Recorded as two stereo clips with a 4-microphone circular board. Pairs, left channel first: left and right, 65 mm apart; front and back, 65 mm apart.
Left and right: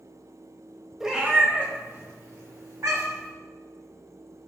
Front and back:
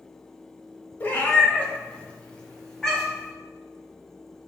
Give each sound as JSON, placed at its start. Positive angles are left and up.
{"t": 1.0, "sound": "a cat meowing", "azimuth_deg": -10, "distance_m": 0.7}